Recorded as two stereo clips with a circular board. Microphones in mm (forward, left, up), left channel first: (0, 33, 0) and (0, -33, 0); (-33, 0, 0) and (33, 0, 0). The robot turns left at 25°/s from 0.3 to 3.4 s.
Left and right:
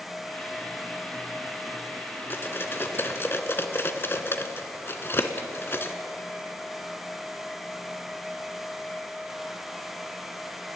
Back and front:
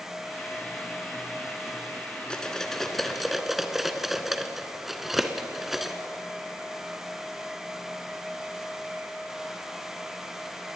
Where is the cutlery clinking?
110° left, 0.8 m; by 6.0 s 85° left, 0.8 m.